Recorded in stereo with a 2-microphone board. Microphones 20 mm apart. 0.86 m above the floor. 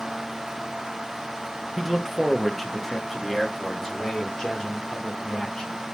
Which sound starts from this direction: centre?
A man speaking, at 1.8 s.